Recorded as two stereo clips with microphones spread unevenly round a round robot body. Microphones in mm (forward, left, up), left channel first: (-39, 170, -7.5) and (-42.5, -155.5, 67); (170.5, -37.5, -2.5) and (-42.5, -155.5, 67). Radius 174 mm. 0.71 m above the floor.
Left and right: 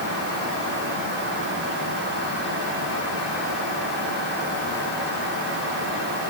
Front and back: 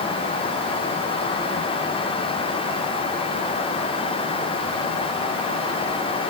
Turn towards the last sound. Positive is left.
No sound to turn to.